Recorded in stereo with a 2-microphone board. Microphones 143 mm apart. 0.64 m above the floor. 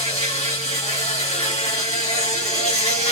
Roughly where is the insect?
Left.